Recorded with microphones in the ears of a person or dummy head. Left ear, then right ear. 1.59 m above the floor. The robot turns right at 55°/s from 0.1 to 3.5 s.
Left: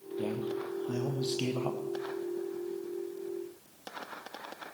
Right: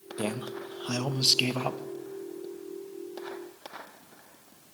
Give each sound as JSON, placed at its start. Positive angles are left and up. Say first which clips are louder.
{"t": 0.2, "sound": "a man speaking", "louder": "right 1 dB", "azimuth_deg": -105, "distance_m": 0.9}